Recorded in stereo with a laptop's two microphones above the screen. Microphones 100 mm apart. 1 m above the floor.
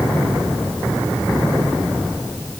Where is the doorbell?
No doorbell in this recording.